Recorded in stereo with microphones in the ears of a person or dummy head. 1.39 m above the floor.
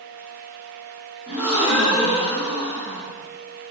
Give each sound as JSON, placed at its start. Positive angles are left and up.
{"t": 1.3, "sound": "a gasp", "side_deg": -5, "distance_m": 0.7}